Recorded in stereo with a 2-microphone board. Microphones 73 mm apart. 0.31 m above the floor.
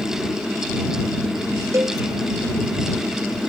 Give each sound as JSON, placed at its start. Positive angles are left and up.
{"t": 1.7, "sound": "a cowbell", "side_deg": -45}